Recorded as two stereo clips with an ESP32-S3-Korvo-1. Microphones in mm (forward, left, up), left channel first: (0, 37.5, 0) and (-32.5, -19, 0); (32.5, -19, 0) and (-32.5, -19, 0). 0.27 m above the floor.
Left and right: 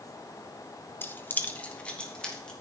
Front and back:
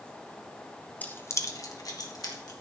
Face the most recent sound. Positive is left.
turn(degrees=-15)